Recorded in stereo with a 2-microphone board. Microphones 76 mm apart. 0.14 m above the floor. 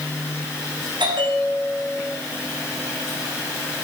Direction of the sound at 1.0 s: 85° right.